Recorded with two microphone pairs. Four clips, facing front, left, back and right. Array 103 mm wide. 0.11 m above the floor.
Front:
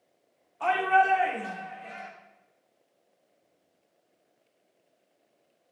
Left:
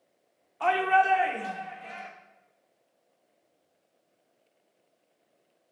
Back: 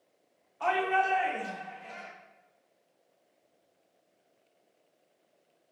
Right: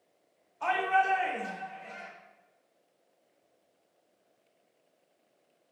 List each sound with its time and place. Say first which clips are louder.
0.6 s a shout: left 4 dB, front 5 dB; 95° left, 7 m; by 2.1 s 85° left, 8 m